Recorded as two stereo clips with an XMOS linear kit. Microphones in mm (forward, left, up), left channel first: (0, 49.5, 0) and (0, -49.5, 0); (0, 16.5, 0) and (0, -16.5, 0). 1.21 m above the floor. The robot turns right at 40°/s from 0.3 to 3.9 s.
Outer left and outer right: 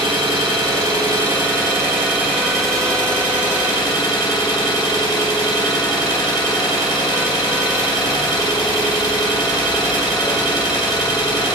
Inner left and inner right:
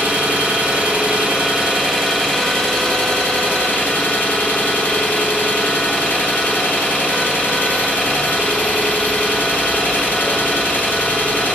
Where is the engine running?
95° right, 1.5 m; by 11.6 s 50° left, 1.5 m.